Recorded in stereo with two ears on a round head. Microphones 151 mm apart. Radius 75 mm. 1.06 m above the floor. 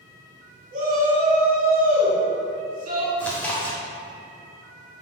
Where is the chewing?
10° left (ahead or behind), 0.6 m.